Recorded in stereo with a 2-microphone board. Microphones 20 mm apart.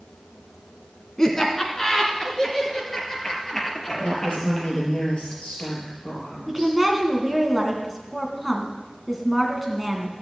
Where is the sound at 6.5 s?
10° right (ahead or behind), 2.5 m.